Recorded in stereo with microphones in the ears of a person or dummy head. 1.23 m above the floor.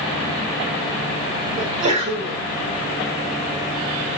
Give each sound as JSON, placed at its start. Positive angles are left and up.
{"t": 1.6, "sound": "a sneeze", "side_deg": -45, "distance_m": 7.0}